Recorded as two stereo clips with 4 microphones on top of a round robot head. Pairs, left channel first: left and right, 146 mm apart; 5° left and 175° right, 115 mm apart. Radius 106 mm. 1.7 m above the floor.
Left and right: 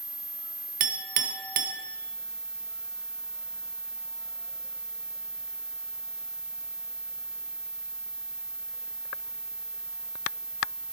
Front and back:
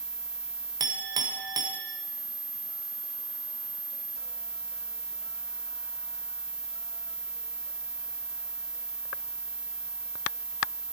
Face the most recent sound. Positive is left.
turn(degrees=-105)